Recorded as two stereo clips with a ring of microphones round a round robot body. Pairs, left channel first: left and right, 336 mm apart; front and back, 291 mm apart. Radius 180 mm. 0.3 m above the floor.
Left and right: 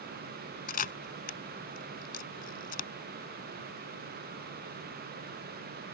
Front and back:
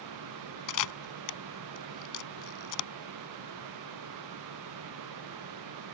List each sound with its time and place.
0.7 s a camera shutter: 25° left